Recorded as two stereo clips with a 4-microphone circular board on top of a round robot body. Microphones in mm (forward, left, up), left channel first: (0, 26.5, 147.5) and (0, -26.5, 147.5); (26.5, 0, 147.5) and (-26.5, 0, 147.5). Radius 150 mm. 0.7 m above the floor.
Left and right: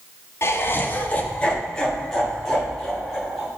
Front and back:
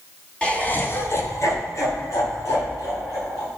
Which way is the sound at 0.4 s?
70° left.